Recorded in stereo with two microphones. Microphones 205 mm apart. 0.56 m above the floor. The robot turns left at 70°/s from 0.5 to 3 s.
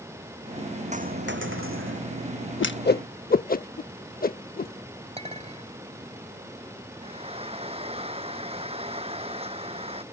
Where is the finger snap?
I don't hear a finger snap.